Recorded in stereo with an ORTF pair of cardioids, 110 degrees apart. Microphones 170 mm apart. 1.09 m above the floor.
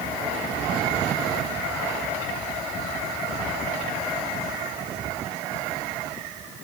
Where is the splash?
I don't hear a splash.